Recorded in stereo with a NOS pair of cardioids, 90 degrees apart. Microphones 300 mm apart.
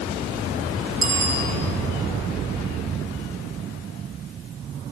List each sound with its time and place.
1.0 s a bicycle bell: 20° right, 7 m